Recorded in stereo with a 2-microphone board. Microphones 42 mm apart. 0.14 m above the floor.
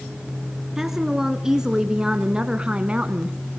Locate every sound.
0.8 s a woman speaking: 10° right (ahead or behind), 1.6 m; by 3.4 s 25° right (ahead or behind), 1.2 m